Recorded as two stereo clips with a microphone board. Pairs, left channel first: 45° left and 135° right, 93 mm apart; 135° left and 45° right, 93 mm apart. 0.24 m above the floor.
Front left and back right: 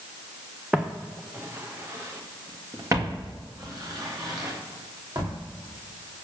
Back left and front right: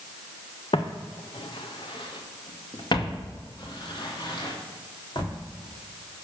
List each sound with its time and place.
0.7 s footsteps: 145° left, 1.0 m; by 5.3 s 175° left, 3.5 m